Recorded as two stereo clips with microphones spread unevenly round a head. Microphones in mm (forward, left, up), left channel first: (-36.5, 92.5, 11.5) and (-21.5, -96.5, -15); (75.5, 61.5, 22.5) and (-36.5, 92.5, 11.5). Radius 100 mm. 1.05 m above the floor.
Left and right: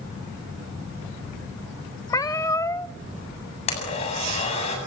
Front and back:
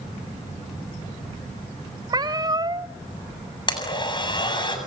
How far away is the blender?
About 7.5 m.